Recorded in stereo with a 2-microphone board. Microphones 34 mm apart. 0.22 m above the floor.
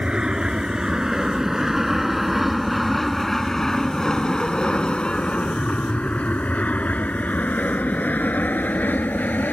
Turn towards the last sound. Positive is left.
turn(degrees=65)  # may be behind; listen again after turning